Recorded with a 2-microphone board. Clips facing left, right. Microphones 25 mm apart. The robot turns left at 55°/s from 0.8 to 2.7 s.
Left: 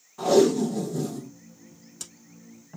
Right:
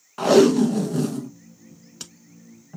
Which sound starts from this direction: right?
Tape being pulled, at 0.2 s.